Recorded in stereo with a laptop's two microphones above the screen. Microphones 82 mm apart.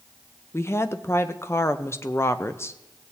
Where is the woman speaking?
30° left (ahead or behind), 0.5 m.